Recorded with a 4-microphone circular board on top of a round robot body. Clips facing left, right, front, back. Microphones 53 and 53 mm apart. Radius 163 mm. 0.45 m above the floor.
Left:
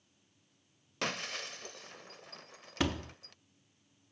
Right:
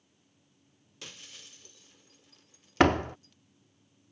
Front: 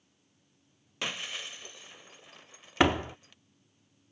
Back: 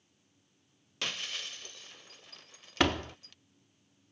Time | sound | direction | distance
1.0 | breaking glass | 75° left | ?
2.8 | a door slam | 70° right | ?